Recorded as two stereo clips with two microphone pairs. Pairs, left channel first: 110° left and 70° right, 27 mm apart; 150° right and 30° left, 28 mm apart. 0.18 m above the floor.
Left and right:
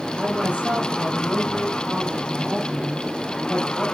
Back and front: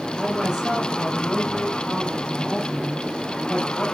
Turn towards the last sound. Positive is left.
turn(degrees=-55)